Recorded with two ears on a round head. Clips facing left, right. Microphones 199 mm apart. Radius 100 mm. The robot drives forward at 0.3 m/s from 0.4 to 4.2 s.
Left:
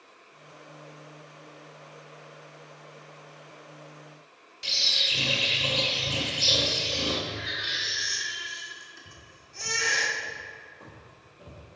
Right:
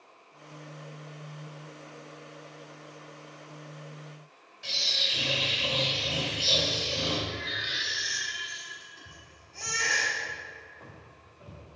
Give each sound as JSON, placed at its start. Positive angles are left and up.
{"t": 4.6, "sound": "a bird", "side_deg": 45, "distance_m": 1.4}
{"t": 7.3, "sound": "a baby crying", "side_deg": 25, "distance_m": 1.1}
{"t": 9.1, "sound": "footsteps", "side_deg": 0, "distance_m": 1.8}